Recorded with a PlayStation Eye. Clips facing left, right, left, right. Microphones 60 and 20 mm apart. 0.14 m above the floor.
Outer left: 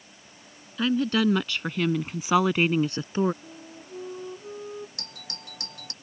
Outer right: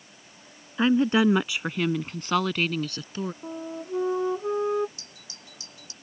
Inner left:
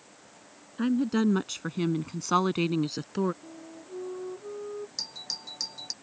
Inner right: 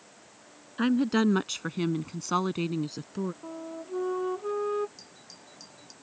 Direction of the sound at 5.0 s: 60° left (ahead or behind).